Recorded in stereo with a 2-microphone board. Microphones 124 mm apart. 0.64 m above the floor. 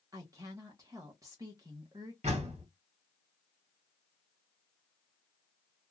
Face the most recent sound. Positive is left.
turn(degrees=-60)  # may be behind; listen again after turning